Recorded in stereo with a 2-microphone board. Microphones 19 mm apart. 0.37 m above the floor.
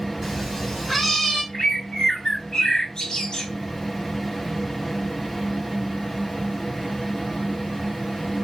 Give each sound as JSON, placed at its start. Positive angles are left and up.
{"t": 0.2, "sound": "a cat meowing", "side_deg": 0, "distance_m": 2.0}
{"t": 1.5, "sound": "a bird", "side_deg": 50, "distance_m": 2.0}